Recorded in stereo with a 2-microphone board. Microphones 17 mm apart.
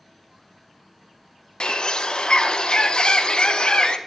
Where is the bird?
55° left (ahead or behind), 0.6 m.